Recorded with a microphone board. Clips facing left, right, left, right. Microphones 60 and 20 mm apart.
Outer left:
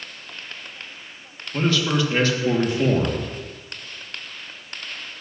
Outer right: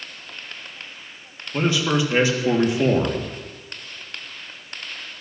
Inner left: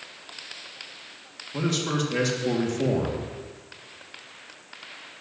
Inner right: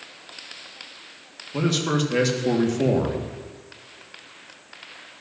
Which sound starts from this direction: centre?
A man speaking, at 1.5 s.